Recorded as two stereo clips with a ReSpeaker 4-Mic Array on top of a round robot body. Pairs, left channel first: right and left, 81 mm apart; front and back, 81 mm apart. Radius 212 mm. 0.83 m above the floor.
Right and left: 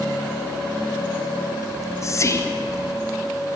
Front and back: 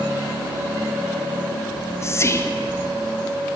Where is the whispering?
45° right, 0.5 m.